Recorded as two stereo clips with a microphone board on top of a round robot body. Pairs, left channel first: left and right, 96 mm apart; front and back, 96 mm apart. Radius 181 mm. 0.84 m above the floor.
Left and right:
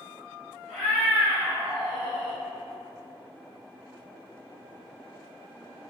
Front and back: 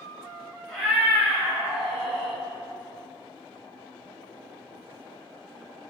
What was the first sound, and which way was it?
A cat meowing, 100° left.